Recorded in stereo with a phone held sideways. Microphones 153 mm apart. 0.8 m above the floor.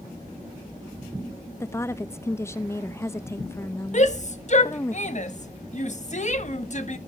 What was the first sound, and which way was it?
A woman speaking, 15° left (ahead or behind).